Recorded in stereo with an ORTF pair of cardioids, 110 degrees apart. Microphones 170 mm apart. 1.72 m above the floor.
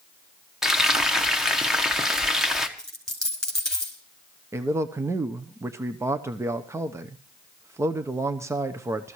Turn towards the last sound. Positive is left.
turn(degrees=-15)